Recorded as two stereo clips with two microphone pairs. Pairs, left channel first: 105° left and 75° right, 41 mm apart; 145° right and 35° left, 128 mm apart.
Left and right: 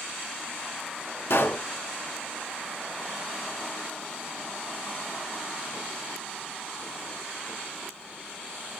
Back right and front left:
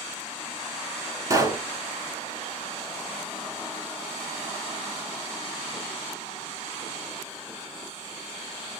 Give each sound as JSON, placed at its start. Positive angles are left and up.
{"t": 1.3, "sound": "a pop", "azimuth_deg": 100, "distance_m": 1.1}